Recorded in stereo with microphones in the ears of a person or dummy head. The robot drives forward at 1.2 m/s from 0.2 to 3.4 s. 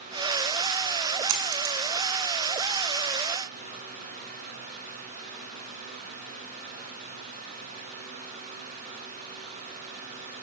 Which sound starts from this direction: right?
A dropped coin, at 1.3 s.